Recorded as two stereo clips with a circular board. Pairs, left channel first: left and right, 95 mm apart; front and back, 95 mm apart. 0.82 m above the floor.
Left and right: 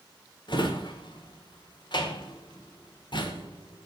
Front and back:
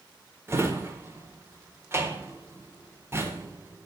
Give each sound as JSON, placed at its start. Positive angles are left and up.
{"t": 0.5, "sound": "a drawer", "azimuth_deg": 120, "distance_m": 1.4}